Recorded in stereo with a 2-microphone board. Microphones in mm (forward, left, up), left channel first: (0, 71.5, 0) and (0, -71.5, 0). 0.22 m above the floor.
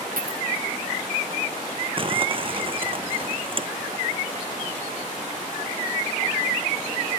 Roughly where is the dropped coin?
Right.